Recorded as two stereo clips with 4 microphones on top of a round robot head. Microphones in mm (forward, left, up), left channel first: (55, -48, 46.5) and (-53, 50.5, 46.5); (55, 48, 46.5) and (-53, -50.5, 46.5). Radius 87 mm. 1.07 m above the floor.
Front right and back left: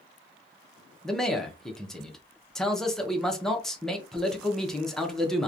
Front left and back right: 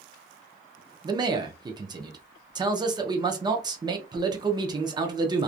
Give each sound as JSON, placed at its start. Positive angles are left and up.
{"t": 1.0, "sound": "a man speaking", "azimuth_deg": -125, "distance_m": 0.7}